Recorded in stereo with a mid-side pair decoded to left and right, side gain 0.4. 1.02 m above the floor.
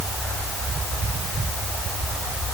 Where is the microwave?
No microwave in this recording.